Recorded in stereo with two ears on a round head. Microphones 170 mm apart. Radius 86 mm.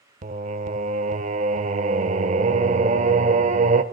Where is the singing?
35° right (ahead or behind), 0.5 m.